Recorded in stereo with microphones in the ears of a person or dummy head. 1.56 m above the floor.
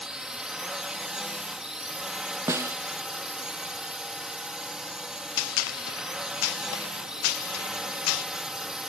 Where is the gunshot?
85° left.